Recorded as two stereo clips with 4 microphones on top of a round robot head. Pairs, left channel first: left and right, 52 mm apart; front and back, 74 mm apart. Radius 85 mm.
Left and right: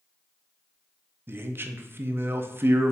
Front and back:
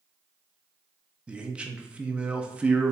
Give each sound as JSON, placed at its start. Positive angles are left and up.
{"t": 1.3, "sound": "a man speaking", "azimuth_deg": -110, "distance_m": 0.6}